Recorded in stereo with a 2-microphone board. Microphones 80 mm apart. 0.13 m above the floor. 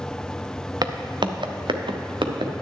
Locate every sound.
0.8 s footsteps: 55° right (ahead or behind), 0.9 m; by 2.5 s 85° right, 1.6 m